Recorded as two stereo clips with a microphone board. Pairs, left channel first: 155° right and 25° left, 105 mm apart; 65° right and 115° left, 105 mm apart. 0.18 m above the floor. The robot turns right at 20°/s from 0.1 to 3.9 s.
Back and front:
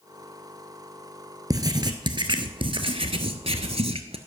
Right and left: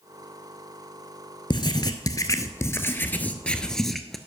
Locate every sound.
1.5 s writing: 30° right, 0.8 m; by 4.2 s 20° left, 0.8 m